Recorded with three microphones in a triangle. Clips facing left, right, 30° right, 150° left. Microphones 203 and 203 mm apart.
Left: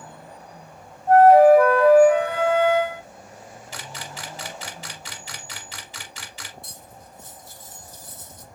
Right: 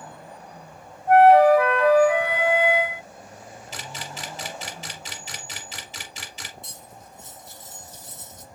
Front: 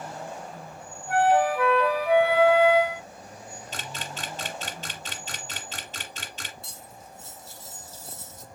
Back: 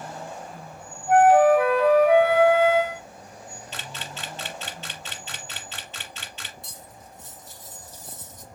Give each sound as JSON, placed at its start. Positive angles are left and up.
{"t": 1.1, "sound": "a flute", "azimuth_deg": 150, "distance_m": 1.4}
{"t": 3.7, "sound": "a camera shutter", "azimuth_deg": -35, "distance_m": 1.2}
{"t": 6.6, "sound": "cutlery clinking", "azimuth_deg": -145, "distance_m": 1.0}